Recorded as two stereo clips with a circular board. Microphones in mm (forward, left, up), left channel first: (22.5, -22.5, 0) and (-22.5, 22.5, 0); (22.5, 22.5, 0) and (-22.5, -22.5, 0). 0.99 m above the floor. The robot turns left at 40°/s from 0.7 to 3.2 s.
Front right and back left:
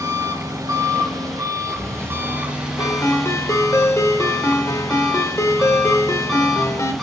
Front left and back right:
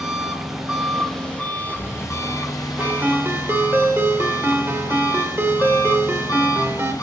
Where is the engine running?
140° left, 3.5 m; by 7.0 s 40° left, 3.5 m.